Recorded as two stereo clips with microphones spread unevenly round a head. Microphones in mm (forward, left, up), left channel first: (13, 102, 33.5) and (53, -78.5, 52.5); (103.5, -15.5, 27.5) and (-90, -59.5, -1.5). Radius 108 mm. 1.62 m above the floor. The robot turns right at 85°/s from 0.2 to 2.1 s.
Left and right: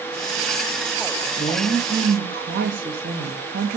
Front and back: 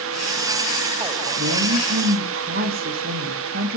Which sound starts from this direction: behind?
A woman speaking, at 1.4 s.